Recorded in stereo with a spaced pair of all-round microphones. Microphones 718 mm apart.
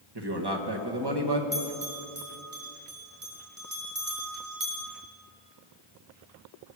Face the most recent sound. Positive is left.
turn(degrees=-50)  # may be behind; listen again after turning